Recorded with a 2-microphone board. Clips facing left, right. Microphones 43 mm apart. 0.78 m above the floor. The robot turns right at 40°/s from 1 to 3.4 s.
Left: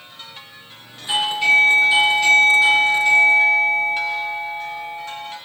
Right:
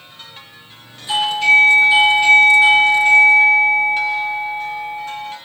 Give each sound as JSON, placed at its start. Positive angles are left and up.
{"t": 1.1, "sound": "a doorbell", "azimuth_deg": 150, "distance_m": 2.0}